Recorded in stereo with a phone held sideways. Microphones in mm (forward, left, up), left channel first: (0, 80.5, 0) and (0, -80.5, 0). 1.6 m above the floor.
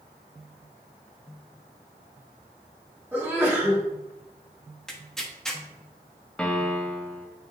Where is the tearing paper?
5° left (ahead or behind), 1.2 m.